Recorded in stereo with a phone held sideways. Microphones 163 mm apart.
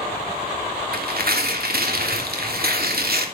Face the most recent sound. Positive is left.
turn(degrees=-70)  # may be behind; listen again after turning